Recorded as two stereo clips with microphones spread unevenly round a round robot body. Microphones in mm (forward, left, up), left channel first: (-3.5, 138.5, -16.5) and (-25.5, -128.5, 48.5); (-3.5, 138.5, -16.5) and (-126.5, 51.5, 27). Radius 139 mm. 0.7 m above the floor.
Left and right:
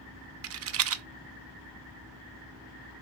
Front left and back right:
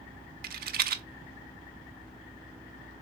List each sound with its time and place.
0.4 s a rattle: 130° right, 0.6 m